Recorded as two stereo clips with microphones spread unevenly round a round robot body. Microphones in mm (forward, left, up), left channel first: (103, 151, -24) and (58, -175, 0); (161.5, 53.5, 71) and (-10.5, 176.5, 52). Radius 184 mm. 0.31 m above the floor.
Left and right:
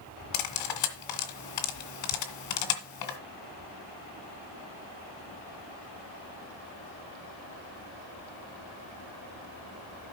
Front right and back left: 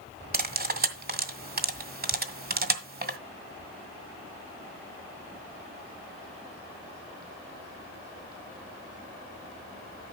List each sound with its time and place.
0.3 s cutlery clinking: 105° left, 1.9 m